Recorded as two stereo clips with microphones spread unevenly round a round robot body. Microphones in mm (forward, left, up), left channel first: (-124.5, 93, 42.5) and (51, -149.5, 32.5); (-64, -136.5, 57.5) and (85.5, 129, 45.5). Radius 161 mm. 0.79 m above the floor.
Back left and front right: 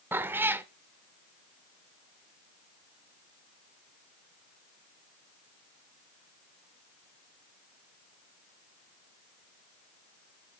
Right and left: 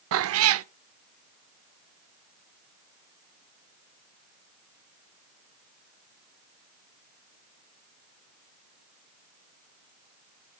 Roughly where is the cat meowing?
Ahead left.